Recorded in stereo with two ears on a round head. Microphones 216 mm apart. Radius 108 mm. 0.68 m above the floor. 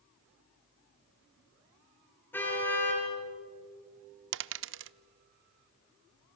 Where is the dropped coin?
55° right (ahead or behind), 0.5 m.